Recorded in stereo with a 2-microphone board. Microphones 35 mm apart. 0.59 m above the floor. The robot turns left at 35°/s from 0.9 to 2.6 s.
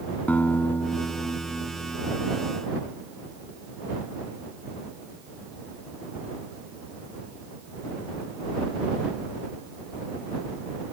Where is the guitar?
125° left; by 2.2 s 80° left.